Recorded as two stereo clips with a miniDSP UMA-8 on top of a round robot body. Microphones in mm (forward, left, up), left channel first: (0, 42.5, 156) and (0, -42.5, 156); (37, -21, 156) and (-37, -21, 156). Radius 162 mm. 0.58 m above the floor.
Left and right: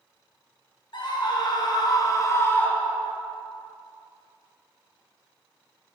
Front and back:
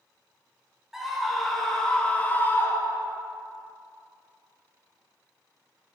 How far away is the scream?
About 1.9 m.